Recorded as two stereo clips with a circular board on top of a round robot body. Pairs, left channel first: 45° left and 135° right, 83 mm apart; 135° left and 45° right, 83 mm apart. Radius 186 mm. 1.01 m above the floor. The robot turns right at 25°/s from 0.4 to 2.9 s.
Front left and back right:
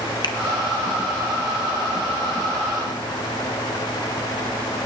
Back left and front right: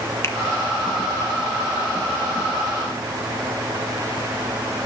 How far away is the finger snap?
About 1.4 m.